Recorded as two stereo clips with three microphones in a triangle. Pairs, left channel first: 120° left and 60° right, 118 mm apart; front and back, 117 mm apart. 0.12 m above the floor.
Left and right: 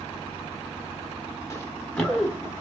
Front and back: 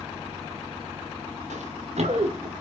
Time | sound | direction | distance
1.5 | running footsteps | 175° right | 1.1 m